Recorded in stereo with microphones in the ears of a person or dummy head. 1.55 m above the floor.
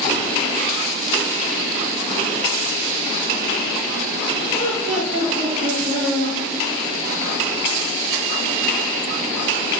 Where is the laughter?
45° right (ahead or behind), 2.5 m; by 6.4 s 35° right (ahead or behind), 4 m.